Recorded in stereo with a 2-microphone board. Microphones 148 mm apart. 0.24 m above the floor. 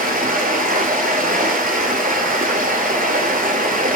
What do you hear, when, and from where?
0.0 s running water: 80° right, 0.9 m